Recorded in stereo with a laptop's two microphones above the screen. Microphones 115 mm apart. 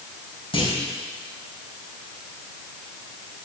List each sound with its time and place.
0.5 s a clunk: 50° left (ahead or behind), 5 m